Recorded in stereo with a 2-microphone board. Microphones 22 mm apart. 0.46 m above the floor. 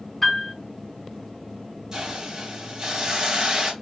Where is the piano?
10° left (ahead or behind), 4 m.